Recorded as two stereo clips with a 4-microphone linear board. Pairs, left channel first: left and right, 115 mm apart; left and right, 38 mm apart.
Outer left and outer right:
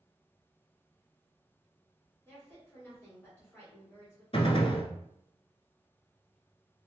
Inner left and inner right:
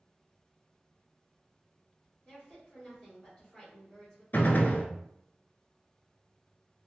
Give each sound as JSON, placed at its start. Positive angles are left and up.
{"t": 2.2, "sound": "a woman speaking", "side_deg": 15, "distance_m": 1.7}
{"t": 4.3, "sound": "a gunshot", "side_deg": 55, "distance_m": 0.6}